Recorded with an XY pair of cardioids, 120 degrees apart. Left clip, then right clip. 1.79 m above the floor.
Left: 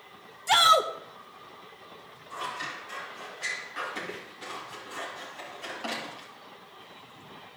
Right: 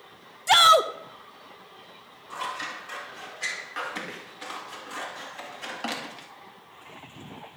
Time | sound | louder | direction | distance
0.5 | a shout | right 3 dB | 20° right | 0.9 m
2.3 | scissors | right 2 dB | 35° right | 2.5 m